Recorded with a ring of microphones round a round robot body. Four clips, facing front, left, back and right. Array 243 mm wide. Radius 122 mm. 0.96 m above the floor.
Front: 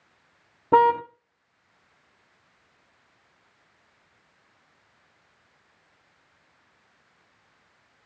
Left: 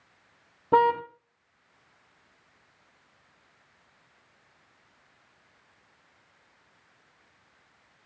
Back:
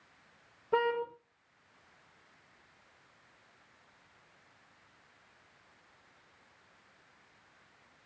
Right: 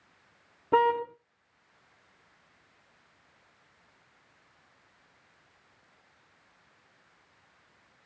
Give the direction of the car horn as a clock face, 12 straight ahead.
11 o'clock.